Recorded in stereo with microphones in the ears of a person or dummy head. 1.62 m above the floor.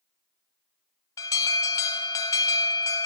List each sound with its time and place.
1.2 s an alarm: 15° left (ahead or behind), 0.7 m